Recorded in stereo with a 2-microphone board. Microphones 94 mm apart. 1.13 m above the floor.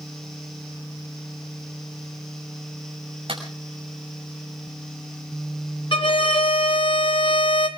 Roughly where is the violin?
Left.